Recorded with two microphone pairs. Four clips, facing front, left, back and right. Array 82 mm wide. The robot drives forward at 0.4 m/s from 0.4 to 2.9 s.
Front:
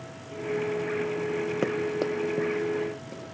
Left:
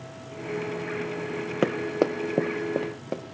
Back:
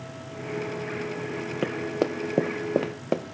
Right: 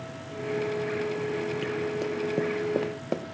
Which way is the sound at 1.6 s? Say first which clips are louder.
Left 5 dB, back 3 dB; 80° left.